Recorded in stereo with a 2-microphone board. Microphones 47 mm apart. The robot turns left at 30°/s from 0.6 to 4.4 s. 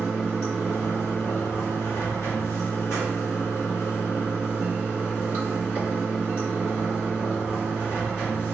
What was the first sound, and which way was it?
Running water, 155° left.